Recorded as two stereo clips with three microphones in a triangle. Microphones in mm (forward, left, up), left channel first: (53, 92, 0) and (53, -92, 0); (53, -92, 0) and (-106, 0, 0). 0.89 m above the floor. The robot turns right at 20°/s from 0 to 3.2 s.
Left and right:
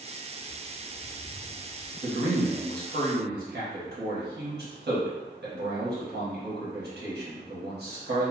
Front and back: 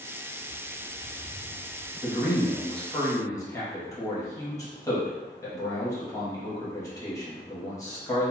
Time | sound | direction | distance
0.4 | a bird | 50° left | 1.1 m
2.0 | a man speaking | 125° right | 1.2 m